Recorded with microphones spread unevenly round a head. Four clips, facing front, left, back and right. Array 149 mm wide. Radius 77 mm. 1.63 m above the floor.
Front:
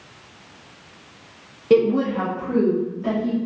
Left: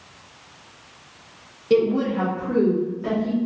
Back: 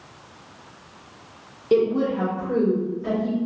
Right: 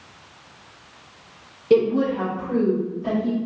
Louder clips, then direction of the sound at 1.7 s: Right 1 dB, front 3 dB; 10° right.